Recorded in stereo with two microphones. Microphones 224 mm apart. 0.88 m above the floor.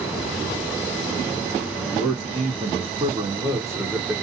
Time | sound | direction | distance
1.9 | a man speaking | 30° right (ahead or behind) | 1.2 m